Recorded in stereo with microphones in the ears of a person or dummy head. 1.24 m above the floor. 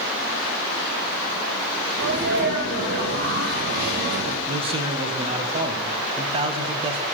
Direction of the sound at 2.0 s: 60° right (ahead or behind).